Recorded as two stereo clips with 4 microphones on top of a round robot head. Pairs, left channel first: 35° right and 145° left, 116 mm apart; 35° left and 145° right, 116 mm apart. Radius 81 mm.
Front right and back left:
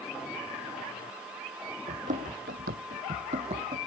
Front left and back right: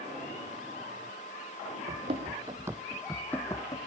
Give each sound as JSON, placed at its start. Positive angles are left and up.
{"t": 1.9, "sound": "running footsteps", "azimuth_deg": 180}